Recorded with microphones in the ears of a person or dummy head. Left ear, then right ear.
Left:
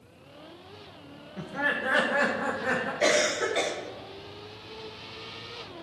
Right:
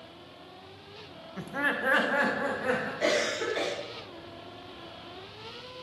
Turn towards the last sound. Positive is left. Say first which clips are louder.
# left 5 dB
turn(degrees=10)  # may be behind; listen again after turning